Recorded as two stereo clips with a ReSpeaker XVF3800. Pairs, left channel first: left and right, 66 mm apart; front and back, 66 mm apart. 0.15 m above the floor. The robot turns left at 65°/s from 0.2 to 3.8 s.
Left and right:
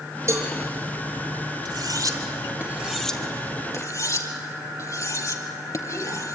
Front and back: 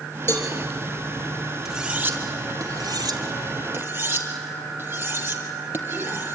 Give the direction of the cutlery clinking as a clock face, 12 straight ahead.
3 o'clock.